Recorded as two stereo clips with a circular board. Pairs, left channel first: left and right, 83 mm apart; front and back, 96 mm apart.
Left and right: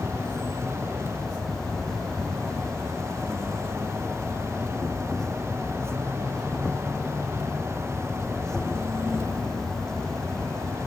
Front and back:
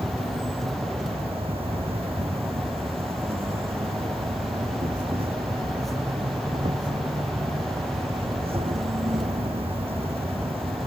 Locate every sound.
0.0 s an insect: 175° left